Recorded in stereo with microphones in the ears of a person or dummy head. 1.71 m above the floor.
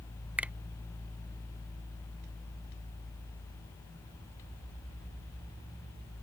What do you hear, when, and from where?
0.4 s a finger snap: 5° right (ahead or behind)